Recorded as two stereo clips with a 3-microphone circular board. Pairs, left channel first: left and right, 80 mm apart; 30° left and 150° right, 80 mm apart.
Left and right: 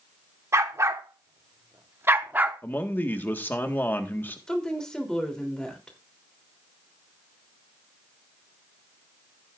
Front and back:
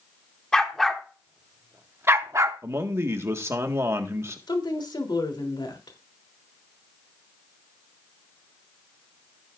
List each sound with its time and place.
0.5 s a dog barking: 50° right, 1.4 m; by 2.6 s 155° right, 1.1 m
2.6 s a man speaking: 155° left, 1.6 m
4.5 s a woman speaking: 5° left, 3.5 m